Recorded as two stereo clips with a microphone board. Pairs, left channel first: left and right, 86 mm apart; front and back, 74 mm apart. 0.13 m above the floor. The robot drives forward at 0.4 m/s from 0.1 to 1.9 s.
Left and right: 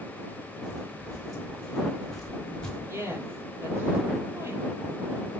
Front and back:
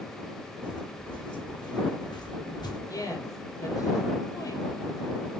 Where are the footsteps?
Straight ahead, 4 m; by 2.8 s 10° left, 1.8 m.